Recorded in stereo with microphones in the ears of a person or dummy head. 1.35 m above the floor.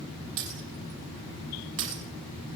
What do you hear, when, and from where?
0.4 s breaking glass: 70° right (ahead or behind), 4 m